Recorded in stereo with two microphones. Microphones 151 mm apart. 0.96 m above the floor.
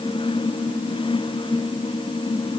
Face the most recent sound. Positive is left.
No sound to turn to.